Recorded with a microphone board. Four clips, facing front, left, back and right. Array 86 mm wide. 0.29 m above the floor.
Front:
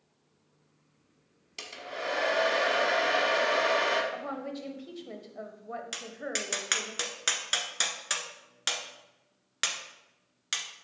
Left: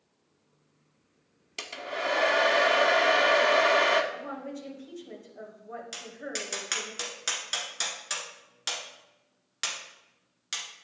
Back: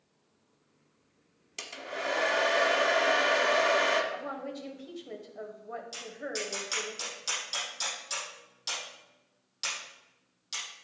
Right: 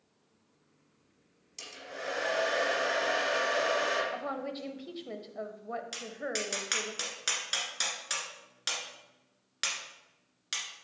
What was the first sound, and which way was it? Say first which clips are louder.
A hair dryer: left 9 dB, back 1 dB; 95° left.